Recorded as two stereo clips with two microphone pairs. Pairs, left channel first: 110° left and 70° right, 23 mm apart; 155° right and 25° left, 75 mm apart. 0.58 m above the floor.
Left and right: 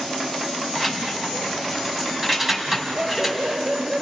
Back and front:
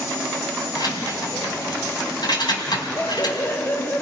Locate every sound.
0.8 s keys jangling: 145° right, 3.5 m
3.0 s laughter: 100° right, 1.8 m